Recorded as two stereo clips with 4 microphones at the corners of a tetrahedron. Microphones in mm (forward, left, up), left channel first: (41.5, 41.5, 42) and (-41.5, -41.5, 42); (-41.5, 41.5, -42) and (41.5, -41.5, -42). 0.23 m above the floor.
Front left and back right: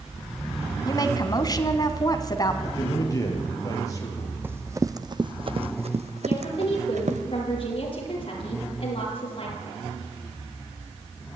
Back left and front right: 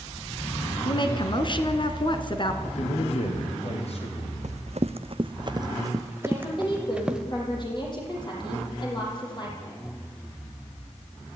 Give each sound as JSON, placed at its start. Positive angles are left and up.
{"t": 0.8, "sound": "a woman speaking", "azimuth_deg": 95, "distance_m": 2.5}
{"t": 2.6, "sound": "a man speaking", "azimuth_deg": 105, "distance_m": 5.5}
{"t": 4.4, "sound": "running footsteps", "azimuth_deg": -65, "distance_m": 1.0}
{"t": 6.2, "sound": "a woman speaking", "azimuth_deg": 85, "distance_m": 8.0}